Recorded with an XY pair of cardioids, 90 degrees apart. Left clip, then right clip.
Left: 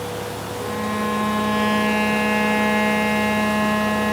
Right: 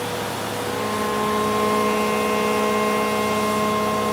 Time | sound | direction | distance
0.6 | a violin | 55° left | 9.5 m